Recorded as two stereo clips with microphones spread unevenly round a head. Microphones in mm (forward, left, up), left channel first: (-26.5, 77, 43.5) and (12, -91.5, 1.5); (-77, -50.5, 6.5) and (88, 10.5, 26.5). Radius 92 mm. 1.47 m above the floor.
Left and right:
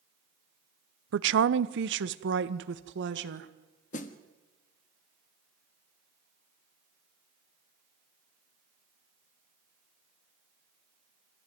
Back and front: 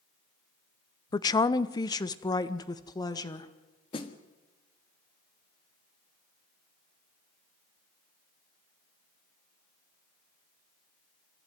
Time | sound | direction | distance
1.1 | a woman speaking | 90° right | 0.6 m
3.9 | a snare drum | 135° left | 1.4 m